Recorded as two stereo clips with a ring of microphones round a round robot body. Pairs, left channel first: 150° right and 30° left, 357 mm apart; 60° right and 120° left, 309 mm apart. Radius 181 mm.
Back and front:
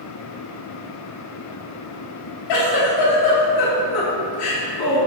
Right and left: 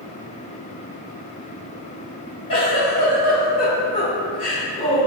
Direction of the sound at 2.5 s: 135° right.